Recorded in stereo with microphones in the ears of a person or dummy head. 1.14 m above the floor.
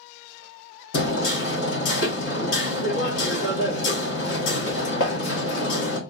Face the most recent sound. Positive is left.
turn(degrees=70)  # may be behind; listen again after turning